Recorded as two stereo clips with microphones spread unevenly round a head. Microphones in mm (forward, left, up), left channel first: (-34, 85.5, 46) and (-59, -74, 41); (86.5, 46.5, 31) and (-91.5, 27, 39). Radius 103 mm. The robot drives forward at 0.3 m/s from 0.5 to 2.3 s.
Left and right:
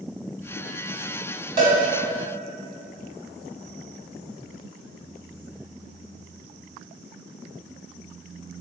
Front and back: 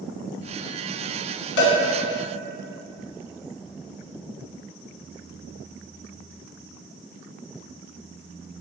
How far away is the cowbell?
About 1.2 m.